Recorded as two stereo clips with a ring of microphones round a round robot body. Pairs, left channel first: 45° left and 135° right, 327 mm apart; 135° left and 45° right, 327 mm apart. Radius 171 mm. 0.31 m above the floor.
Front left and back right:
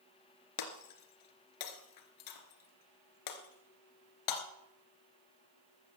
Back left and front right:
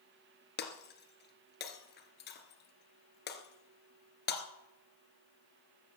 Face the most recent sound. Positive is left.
turn(degrees=75)